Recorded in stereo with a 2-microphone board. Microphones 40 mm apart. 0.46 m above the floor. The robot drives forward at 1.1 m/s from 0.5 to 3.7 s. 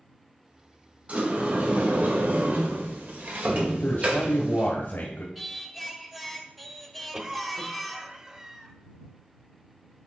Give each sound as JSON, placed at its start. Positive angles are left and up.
{"t": 1.1, "sound": "a sliding door", "side_deg": -35, "distance_m": 2.5}
{"t": 3.8, "sound": "a man speaking", "side_deg": 55, "distance_m": 1.5}
{"t": 5.3, "sound": "singing", "side_deg": 0, "distance_m": 0.8}
{"t": 7.1, "sound": "a cough", "side_deg": -15, "distance_m": 0.9}